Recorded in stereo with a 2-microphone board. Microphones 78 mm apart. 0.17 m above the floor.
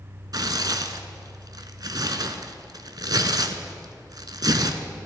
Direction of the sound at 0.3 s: 60° right (ahead or behind).